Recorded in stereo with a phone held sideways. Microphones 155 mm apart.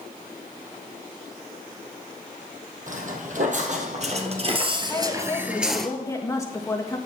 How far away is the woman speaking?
About 1.8 m.